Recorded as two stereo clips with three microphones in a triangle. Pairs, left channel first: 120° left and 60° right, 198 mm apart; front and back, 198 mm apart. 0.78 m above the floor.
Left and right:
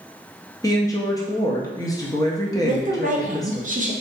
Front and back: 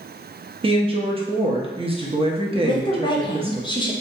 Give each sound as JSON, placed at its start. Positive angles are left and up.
{"t": 0.6, "sound": "a woman speaking", "azimuth_deg": 170, "distance_m": 0.6}
{"t": 2.6, "sound": "a woman speaking", "azimuth_deg": -55, "distance_m": 0.7}